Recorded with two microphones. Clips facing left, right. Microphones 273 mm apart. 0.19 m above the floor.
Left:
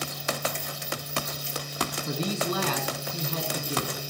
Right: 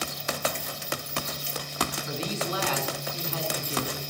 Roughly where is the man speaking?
Left.